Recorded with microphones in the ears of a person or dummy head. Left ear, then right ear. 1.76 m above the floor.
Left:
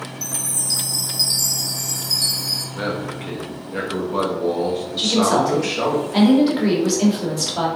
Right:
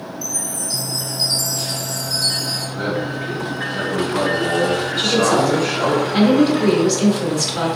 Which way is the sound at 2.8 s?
50° left (ahead or behind).